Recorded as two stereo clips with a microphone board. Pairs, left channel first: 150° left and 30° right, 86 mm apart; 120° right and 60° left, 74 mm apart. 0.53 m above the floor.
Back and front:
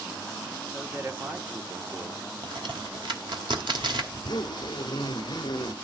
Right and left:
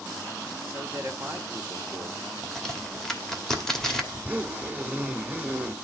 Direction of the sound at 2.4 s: 40° right.